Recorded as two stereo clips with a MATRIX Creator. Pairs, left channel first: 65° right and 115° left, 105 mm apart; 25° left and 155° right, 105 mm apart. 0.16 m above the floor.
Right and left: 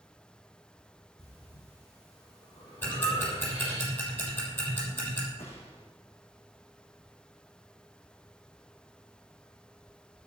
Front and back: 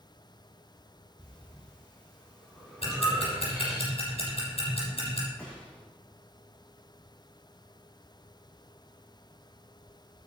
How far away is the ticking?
About 6.5 m.